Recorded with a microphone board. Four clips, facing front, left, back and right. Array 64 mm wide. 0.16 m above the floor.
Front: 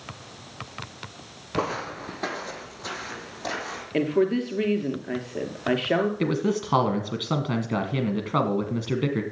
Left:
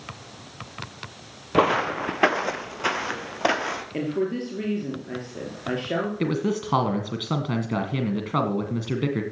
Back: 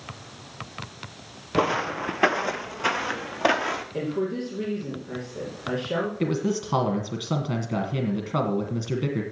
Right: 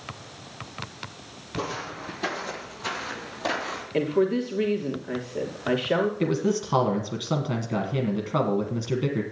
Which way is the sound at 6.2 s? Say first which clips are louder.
Even, front 1 dB; 35° left.